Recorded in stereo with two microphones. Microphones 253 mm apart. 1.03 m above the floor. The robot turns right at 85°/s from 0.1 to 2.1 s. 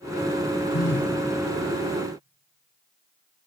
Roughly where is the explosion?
No explosion in this recording.